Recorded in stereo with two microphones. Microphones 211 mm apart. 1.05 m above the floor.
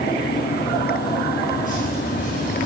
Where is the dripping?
40° left (ahead or behind), 7.5 m.